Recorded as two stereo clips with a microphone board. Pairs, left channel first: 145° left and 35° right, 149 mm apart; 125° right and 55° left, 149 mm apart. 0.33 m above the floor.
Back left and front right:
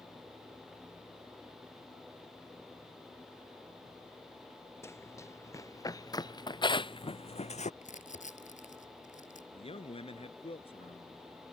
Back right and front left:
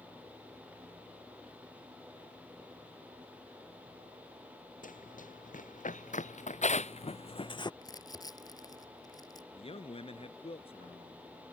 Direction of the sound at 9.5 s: 170° right.